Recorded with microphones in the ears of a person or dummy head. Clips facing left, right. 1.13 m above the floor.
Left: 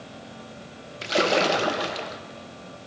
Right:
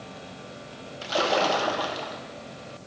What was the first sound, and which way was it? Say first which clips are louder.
A splash: left 2 dB; 30° left (ahead or behind).